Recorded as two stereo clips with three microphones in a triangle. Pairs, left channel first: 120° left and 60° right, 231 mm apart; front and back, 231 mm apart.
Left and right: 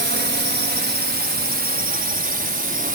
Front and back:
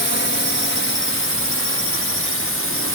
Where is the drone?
25° right; by 3.0 s 10° right.